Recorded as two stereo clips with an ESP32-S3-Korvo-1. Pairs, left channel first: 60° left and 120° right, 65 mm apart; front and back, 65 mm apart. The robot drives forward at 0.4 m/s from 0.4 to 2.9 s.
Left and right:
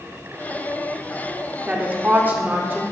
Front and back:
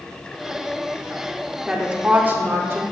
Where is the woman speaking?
115° right, 0.7 m; by 2.8 s 160° right, 0.9 m.